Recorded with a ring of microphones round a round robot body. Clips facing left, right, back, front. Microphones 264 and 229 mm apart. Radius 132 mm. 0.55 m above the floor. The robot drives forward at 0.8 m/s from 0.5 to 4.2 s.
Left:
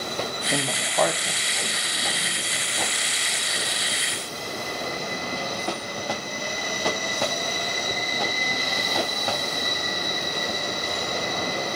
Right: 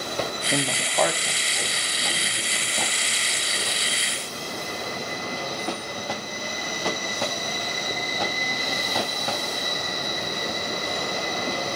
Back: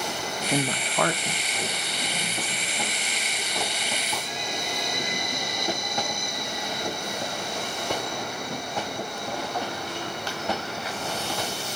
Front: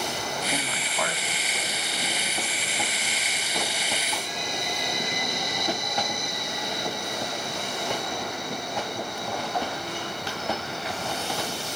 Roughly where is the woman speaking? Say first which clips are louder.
Right 1 dB, back 6 dB; behind.